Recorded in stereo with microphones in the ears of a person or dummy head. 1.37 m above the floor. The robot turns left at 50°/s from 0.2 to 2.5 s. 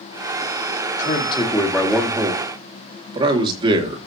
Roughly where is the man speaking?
Ahead left.